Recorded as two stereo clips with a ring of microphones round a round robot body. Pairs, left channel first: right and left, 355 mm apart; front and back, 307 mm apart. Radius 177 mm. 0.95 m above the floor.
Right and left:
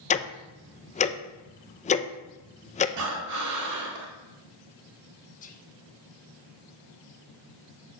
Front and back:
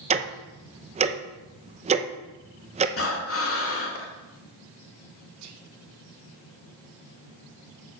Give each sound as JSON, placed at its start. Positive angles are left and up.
{"t": 0.1, "sound": "ticking", "azimuth_deg": -135, "distance_m": 0.6}
{"t": 3.0, "sound": "breathing", "azimuth_deg": 45, "distance_m": 2.0}
{"t": 5.4, "sound": "whispering", "azimuth_deg": -155, "distance_m": 1.2}